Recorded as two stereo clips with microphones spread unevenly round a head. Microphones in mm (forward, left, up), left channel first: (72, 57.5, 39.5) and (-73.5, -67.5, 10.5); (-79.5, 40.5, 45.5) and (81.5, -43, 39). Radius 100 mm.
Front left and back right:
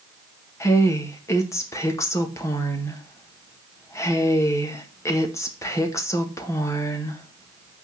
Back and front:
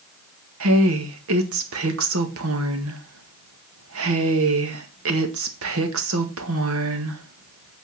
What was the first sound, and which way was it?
A woman speaking, 35° right.